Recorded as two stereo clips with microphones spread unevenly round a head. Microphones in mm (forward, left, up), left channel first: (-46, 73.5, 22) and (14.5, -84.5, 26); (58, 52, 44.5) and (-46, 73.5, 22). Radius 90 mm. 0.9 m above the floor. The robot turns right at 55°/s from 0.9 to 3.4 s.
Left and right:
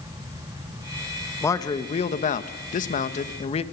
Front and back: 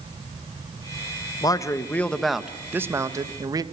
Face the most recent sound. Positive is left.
turn(degrees=150)